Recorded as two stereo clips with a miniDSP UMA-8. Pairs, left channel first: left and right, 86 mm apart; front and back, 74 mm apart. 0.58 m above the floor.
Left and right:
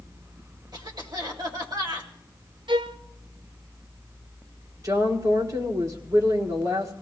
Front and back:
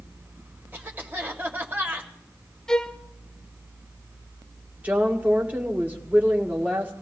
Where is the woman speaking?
120° right, 1.8 m.